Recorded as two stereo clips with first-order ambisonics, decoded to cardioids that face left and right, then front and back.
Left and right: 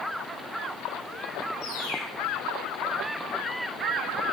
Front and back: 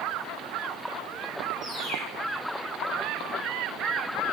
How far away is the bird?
About 5 m.